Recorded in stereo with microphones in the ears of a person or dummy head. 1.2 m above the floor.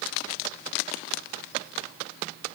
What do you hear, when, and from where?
Only background noise.